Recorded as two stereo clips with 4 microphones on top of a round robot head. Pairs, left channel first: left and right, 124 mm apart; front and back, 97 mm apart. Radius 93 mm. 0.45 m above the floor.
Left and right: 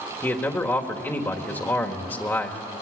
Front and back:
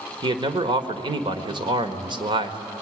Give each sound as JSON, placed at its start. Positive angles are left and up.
{"t": 0.2, "sound": "a man speaking", "azimuth_deg": 165, "distance_m": 1.6}